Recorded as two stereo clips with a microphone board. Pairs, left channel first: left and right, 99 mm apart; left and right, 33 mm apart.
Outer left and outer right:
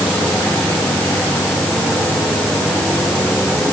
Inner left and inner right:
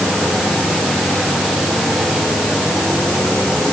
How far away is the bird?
No bird in this recording.